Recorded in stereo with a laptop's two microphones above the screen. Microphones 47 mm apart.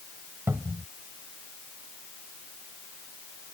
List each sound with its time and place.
0.5 s a cupboard door: 60° right (ahead or behind)